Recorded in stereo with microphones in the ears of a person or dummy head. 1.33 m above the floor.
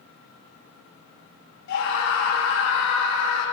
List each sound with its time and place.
1.7 s a scream: 65° left (ahead or behind), 3 m; by 3.4 s 85° left, 5 m